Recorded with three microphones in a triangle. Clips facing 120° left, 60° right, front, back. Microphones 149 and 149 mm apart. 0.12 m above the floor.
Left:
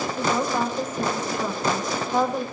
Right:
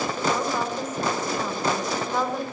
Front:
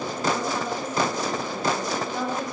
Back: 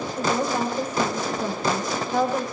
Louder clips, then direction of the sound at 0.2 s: Left 3 dB, back 4 dB; 160° right.